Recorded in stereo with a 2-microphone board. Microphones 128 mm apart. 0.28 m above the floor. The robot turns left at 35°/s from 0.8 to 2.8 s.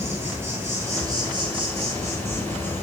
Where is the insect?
20° right, 0.7 m; by 2.8 s 90° right, 0.7 m.